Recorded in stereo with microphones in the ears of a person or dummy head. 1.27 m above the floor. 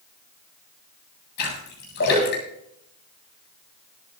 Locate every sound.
1.4 s a splash: 55° left (ahead or behind), 8 m